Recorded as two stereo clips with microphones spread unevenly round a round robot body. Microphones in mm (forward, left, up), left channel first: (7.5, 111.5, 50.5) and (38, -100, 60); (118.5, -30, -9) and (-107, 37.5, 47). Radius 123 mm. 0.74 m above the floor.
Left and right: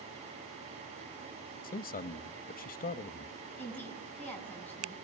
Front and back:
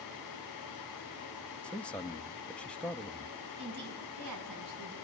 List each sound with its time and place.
1.6 s a man speaking: 60° left, 0.7 m
3.6 s a woman speaking: straight behind, 7 m